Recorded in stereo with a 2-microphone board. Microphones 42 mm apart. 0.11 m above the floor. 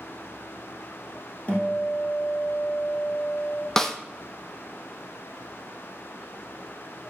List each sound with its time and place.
1.5 s a guitar: 30° left (ahead or behind), 2.5 m
3.8 s a snare drum: 10° left (ahead or behind), 0.7 m